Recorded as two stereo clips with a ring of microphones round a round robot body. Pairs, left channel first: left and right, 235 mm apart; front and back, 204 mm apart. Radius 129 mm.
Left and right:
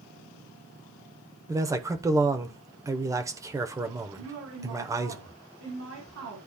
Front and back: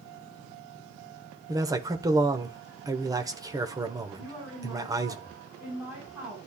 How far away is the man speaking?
About 0.9 m.